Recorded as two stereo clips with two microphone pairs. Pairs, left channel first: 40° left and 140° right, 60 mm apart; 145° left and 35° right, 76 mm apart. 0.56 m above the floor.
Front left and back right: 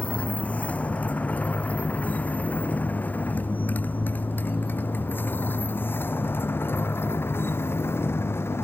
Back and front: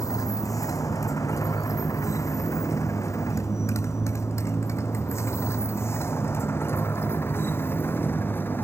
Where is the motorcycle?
105° left; by 8.6 s 85° left.